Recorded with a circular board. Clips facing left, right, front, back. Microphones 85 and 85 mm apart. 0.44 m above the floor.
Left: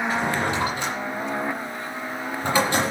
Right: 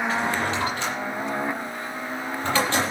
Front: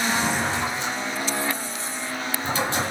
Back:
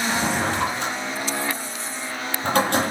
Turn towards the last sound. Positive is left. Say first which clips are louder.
# left 1 dB, back 1 dB
turn(degrees=165)